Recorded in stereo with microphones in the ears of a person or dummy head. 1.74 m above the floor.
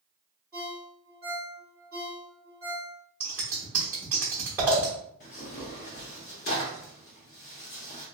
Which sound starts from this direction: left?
Tearing paper, at 5.2 s.